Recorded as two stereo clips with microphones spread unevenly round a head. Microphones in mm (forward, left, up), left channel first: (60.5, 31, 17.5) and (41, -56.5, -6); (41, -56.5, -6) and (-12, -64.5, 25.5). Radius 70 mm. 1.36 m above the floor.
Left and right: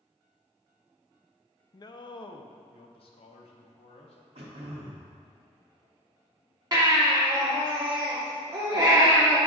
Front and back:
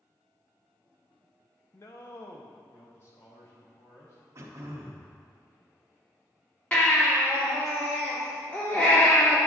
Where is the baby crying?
55° right, 2.5 m.